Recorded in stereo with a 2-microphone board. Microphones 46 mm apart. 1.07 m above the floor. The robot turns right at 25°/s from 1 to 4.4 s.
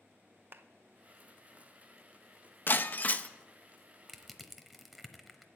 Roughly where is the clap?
Right.